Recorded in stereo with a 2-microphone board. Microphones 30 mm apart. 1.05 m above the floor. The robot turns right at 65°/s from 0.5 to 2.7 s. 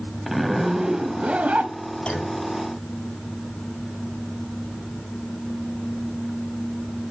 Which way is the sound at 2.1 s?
40° left (ahead or behind).